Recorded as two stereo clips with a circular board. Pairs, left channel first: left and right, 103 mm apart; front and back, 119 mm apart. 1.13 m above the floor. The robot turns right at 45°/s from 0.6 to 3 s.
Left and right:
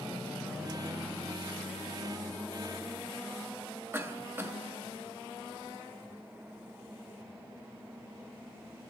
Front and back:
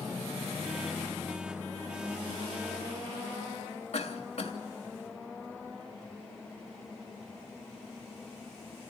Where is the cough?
25° right, 2.5 m.